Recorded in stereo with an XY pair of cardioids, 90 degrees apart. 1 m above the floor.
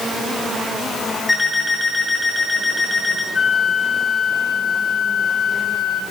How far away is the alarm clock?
About 5.5 m.